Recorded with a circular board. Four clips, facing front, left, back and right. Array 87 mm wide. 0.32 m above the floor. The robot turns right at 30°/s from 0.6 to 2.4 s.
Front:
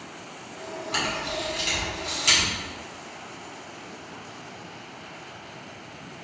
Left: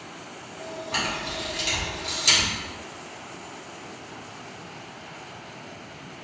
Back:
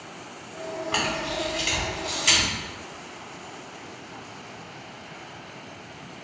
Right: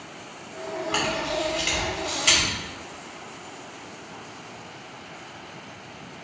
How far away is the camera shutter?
About 1.7 m.